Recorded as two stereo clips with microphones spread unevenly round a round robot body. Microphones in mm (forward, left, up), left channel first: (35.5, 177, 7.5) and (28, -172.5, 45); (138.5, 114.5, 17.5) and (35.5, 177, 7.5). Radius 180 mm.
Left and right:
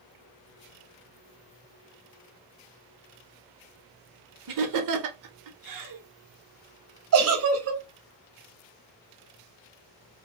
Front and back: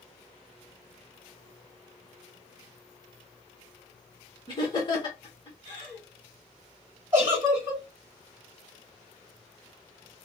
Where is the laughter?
85° right, 0.9 m.